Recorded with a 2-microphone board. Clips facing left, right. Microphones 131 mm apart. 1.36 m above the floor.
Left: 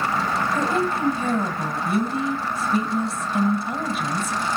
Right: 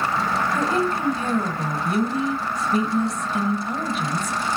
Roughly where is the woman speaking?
Centre.